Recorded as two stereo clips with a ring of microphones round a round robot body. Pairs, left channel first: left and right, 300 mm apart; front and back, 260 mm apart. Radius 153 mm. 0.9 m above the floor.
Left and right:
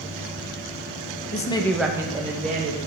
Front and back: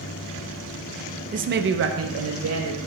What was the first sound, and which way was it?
A woman speaking, 135° left.